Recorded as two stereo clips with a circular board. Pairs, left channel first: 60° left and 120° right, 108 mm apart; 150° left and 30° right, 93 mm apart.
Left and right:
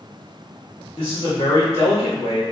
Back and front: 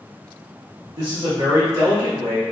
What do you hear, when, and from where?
0.9 s a man speaking: 25° left, 1.5 m